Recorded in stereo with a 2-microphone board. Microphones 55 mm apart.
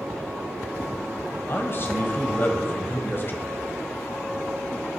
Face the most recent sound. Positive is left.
turn(degrees=45)  # may be behind; listen again after turning